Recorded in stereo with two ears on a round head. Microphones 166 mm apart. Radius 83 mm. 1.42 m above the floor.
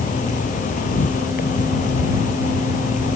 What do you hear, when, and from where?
0.0 s an insect: 45° left (ahead or behind)